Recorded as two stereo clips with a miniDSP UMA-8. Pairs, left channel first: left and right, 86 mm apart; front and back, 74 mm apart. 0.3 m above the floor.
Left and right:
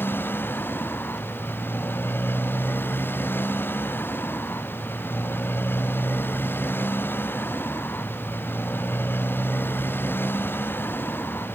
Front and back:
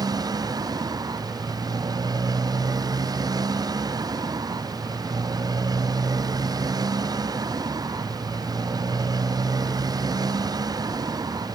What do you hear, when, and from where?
0.0 s a motorcycle: 155° left